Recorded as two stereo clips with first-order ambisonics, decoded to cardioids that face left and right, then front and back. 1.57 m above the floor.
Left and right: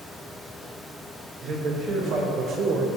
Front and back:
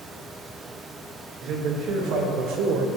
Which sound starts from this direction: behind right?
A man speaking, at 1.4 s.